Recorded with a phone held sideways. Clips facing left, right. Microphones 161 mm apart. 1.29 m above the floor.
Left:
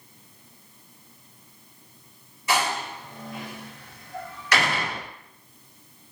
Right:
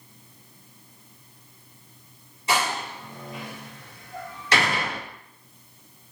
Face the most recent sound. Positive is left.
turn(degrees=-30)  # may be behind; listen again after turning